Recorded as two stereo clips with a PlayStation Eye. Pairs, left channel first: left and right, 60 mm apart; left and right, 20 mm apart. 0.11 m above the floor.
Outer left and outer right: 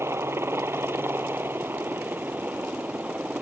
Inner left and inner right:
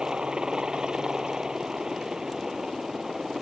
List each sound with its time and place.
0.0 s a helicopter: 45° right (ahead or behind); by 3.4 s 20° right (ahead or behind)